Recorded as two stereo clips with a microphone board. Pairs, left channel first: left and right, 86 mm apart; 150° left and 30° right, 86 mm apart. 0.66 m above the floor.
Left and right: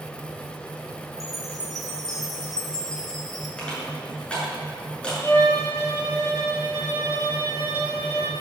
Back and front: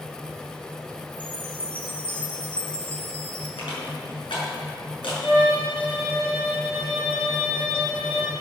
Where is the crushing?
170° left, 7.5 m.